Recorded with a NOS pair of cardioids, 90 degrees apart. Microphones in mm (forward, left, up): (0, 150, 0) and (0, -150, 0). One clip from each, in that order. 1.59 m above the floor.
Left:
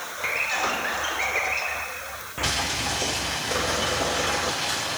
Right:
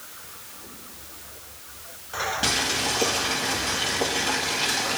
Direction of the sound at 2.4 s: 55° right.